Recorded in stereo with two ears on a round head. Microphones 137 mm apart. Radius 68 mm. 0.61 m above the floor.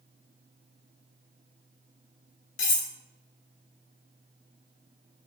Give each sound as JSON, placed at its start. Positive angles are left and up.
{"t": 2.6, "sound": "cutlery clinking", "side_deg": 50, "distance_m": 1.7}